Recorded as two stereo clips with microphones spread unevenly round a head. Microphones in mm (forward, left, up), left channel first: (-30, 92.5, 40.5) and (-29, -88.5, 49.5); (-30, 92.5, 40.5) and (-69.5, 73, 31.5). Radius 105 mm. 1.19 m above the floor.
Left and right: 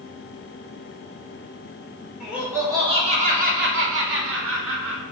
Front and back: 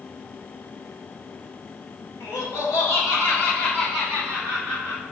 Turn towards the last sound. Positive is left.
turn(degrees=-95)